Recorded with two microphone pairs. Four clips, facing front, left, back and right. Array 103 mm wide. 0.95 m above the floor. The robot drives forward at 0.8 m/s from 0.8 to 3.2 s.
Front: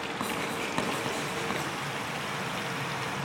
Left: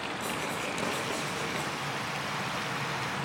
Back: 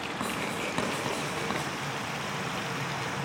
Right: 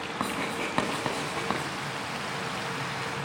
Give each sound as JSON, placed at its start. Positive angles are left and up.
{"t": 0.2, "sound": "writing", "azimuth_deg": -85, "distance_m": 4.5}